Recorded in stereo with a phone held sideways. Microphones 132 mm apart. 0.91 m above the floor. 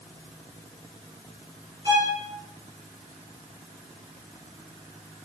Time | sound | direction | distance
1.9 | a violin | 30° right (ahead or behind) | 1.0 m